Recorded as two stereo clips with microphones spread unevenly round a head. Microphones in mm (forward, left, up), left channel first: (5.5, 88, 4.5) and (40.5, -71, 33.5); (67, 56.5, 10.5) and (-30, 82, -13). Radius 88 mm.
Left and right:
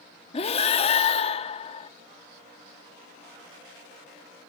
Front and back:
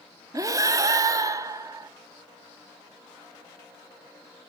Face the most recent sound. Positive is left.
turn(degrees=135)